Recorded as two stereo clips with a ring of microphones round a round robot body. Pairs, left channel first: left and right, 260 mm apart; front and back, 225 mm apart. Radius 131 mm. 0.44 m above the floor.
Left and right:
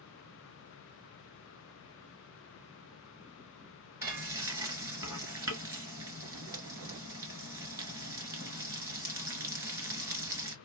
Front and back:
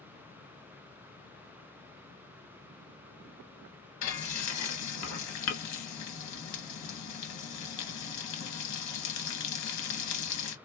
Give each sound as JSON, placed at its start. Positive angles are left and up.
{"t": 4.0, "sound": "frying", "azimuth_deg": -10, "distance_m": 1.0}